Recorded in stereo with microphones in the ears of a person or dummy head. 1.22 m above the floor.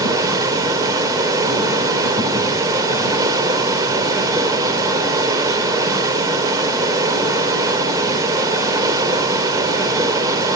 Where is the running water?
15° right (ahead or behind), 2.5 m.